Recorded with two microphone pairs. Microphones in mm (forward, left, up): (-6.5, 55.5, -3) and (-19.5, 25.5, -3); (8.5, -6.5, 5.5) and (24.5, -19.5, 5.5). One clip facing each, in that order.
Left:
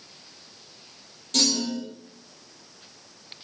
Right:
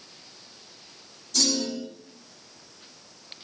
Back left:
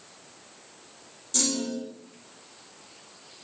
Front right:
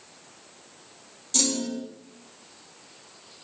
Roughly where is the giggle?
I don't hear a giggle.